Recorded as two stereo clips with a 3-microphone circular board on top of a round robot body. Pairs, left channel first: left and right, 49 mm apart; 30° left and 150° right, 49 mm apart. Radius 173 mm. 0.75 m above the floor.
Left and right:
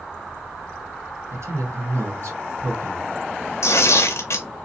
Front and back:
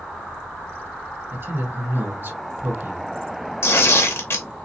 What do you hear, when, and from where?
1.3 s a man speaking: 105° right, 2 m
3.6 s tearing paper: 65° left, 0.7 m